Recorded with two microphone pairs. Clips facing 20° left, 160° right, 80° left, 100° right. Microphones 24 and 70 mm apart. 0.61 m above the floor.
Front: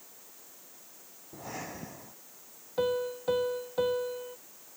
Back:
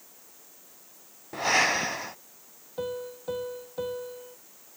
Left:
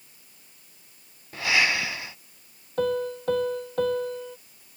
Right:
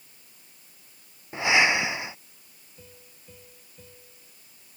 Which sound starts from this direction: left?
A piano, at 2.8 s.